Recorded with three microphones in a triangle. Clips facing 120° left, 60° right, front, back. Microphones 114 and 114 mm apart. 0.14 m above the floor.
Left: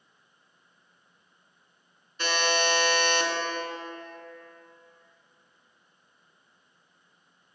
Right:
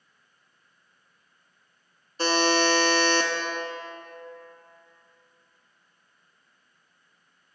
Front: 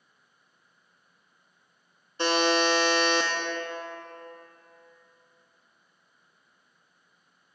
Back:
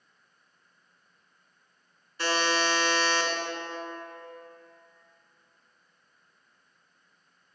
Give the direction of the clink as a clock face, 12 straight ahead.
I don't hear a clink.